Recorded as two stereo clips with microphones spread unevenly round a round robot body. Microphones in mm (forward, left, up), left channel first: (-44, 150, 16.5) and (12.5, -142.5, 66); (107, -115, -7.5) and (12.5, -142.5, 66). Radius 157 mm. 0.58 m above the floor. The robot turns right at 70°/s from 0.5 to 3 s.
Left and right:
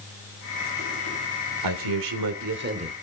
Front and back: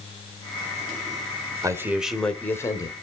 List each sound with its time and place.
1.6 s a man speaking: 90° right, 2.5 m; by 2.9 s straight ahead, 2.5 m